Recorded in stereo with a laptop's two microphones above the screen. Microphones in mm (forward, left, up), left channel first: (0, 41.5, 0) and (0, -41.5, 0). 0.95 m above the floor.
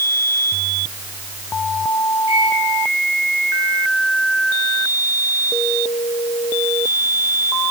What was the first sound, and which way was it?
A microwave, 40° right (ahead or behind).